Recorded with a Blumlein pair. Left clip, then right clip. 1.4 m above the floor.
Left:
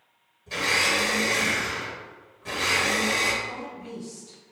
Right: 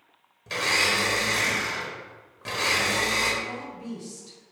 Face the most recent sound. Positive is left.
turn(degrees=-30)